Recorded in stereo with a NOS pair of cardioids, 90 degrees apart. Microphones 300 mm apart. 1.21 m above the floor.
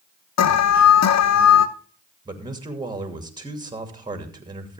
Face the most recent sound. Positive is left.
turn(degrees=-15)